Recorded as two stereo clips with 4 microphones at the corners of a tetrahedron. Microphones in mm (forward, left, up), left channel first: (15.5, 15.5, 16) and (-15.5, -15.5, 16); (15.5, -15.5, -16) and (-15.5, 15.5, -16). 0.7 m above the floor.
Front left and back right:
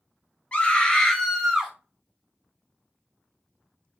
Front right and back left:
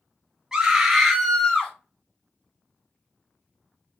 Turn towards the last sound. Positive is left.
turn(degrees=-85)